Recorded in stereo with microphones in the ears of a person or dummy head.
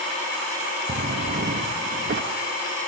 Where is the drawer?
40° right (ahead or behind), 1.5 m.